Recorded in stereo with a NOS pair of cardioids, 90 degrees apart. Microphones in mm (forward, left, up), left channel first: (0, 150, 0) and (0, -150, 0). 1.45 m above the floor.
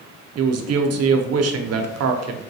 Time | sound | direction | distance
0.4 | a man speaking | 55° right | 0.6 m